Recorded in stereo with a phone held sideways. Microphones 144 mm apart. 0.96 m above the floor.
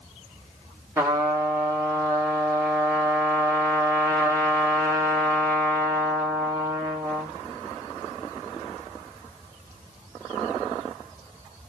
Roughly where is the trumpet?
Centre.